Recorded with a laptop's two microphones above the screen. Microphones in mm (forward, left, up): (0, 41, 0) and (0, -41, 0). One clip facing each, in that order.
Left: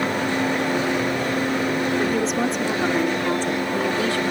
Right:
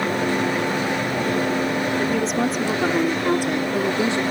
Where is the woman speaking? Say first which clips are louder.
Even; 5° left (ahead or behind); by 4.2 s 25° right (ahead or behind).